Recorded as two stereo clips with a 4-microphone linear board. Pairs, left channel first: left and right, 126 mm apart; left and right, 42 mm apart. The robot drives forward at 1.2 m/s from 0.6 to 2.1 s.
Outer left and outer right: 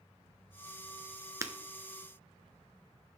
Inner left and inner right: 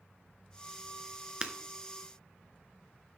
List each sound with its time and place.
1.4 s breaking glass: 25° right (ahead or behind), 0.8 m